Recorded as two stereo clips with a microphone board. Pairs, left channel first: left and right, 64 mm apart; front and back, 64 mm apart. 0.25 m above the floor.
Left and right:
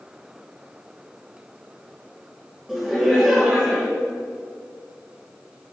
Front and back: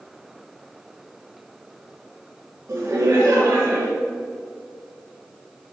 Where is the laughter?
175° right, 2 m.